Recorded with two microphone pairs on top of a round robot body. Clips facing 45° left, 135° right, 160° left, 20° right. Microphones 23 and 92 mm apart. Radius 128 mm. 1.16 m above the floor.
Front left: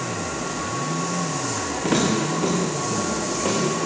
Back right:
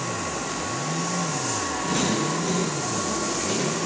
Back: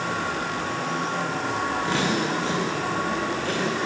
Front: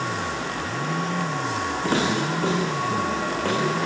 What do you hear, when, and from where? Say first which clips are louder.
1.8 s footsteps: front left 4 dB, front 4 dB; 30° left, 7 m; by 3.9 s 25° left, 8 m